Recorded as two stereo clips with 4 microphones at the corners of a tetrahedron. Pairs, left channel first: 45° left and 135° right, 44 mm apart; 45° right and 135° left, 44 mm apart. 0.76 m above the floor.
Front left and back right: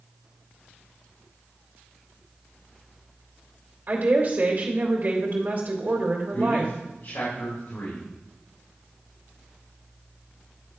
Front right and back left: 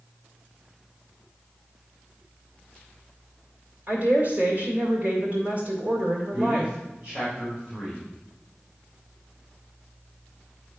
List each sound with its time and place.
3.9 s a woman speaking: straight behind, 2.0 m
6.3 s a man speaking: 60° left, 3 m